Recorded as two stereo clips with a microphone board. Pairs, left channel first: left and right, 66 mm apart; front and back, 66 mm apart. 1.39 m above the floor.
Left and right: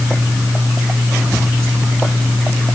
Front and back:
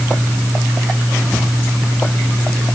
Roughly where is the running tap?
I don't hear a running tap.